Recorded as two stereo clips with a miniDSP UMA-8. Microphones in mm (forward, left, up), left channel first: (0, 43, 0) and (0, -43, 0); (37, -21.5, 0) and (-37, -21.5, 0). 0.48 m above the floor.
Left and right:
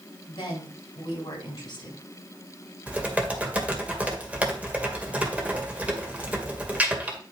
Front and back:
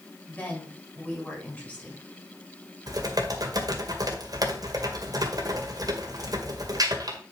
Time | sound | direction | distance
0.3 | a woman speaking | 65° left | 4 m
2.9 | typing on a keyboard | 160° right | 1.8 m